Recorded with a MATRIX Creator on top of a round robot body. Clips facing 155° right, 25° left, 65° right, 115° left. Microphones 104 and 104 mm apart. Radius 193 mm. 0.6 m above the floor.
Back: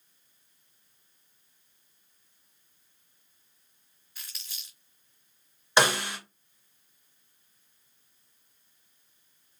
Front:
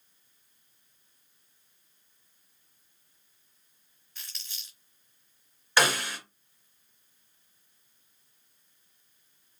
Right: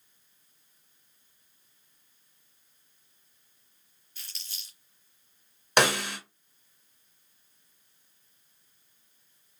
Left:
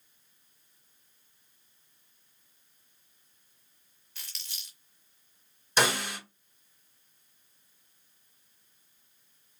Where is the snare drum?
90° right, 1.7 m.